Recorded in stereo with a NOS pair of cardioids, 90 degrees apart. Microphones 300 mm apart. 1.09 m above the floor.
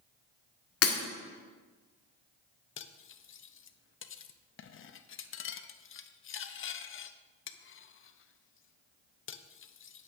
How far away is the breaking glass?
About 1.8 m.